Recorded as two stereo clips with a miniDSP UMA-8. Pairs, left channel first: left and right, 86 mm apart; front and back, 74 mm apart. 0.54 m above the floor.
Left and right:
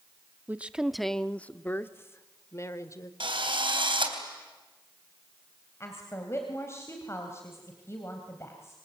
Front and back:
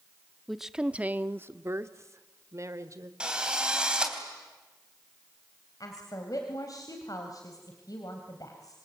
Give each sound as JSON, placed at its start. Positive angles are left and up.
{"t": 0.5, "sound": "a woman speaking", "azimuth_deg": -90, "distance_m": 0.8}
{"t": 3.2, "sound": "a drill", "azimuth_deg": -105, "distance_m": 3.5}
{"t": 5.8, "sound": "a woman speaking", "azimuth_deg": 30, "distance_m": 3.0}